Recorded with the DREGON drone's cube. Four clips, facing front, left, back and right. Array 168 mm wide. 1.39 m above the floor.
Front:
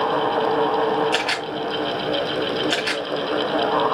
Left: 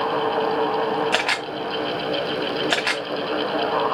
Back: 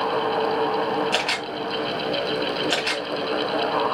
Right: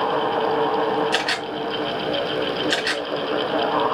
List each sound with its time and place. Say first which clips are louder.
1.1 s a camera shutter: even, front 2 dB; 90° left, 2.5 m